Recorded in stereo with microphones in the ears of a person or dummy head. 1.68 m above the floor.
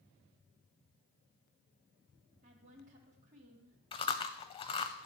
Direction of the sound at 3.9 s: 25° left (ahead or behind).